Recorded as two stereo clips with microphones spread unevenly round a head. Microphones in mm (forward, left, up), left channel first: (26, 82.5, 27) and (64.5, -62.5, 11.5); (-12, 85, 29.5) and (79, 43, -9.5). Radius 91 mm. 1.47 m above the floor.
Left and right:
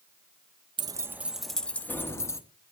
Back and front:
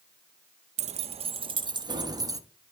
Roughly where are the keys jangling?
Ahead.